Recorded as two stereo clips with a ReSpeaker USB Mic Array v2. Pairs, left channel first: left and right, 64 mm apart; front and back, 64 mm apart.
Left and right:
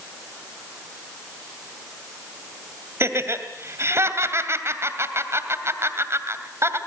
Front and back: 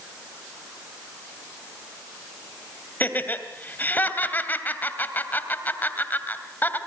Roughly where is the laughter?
Ahead right.